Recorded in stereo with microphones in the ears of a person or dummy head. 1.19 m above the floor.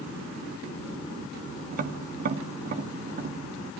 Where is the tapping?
45° right (ahead or behind), 1.9 m.